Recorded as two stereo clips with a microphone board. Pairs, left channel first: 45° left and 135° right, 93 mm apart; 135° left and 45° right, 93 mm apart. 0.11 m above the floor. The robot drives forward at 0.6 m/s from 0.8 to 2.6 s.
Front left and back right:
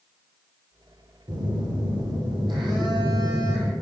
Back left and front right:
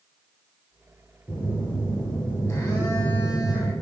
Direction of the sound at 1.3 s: 155° right.